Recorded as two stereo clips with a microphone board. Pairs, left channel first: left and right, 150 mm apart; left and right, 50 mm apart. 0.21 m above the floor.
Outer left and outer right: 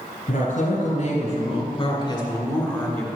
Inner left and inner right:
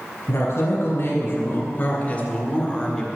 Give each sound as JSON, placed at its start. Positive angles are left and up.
{"t": 0.3, "sound": "a woman speaking", "side_deg": 65, "distance_m": 2.5}